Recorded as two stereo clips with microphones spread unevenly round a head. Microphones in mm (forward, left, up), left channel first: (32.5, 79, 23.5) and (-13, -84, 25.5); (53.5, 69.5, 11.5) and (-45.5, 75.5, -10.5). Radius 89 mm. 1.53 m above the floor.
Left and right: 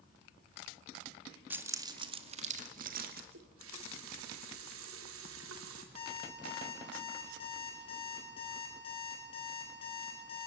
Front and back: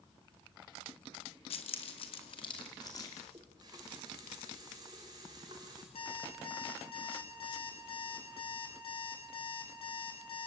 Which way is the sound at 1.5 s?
25° right.